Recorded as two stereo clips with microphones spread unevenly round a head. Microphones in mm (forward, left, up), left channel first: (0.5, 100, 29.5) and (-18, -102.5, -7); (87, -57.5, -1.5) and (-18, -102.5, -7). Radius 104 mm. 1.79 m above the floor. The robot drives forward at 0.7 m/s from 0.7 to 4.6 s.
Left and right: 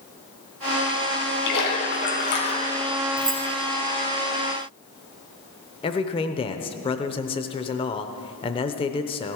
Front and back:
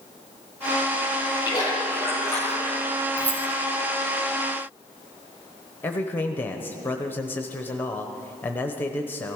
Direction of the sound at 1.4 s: 85° left.